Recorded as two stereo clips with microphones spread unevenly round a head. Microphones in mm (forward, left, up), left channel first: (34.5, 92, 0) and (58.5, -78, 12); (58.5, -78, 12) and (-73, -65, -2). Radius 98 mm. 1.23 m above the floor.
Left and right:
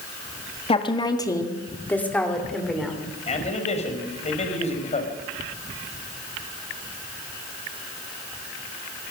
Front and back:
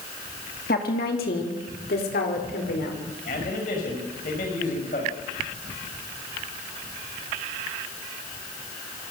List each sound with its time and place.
0.7 s a woman speaking: 40° left, 2.5 m; by 3.0 s 5° left, 5 m
3.3 s a man speaking: 45° left, 5.5 m